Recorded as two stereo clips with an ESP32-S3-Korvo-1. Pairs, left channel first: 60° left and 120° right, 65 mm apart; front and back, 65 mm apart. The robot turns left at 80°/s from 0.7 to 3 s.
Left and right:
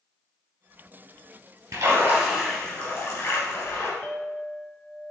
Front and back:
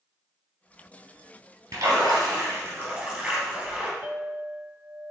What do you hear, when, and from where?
1.7 s a splash: 155° right, 3.5 m; by 3.9 s 100° left, 3.5 m
4.0 s a clink: 130° left, 1.1 m